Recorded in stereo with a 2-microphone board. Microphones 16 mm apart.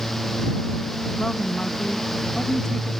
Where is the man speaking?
65° left (ahead or behind).